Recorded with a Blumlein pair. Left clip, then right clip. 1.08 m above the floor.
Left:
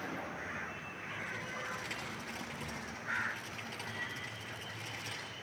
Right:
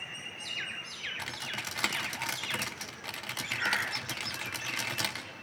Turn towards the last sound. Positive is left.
turn(degrees=-40)